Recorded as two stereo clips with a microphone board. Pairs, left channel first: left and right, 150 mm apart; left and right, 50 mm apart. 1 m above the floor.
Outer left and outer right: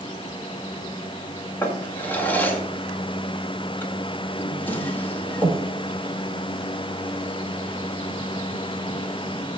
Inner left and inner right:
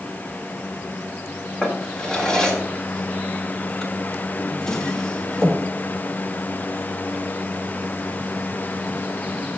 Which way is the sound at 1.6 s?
10° left (ahead or behind).